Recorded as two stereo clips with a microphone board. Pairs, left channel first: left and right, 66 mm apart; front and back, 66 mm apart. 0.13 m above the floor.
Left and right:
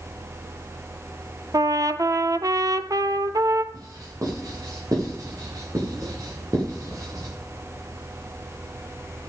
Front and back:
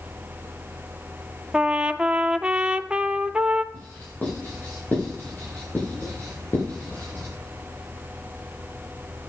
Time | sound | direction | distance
1.5 | a trumpet | 105° right | 0.7 m
3.7 | writing | 65° right | 10 m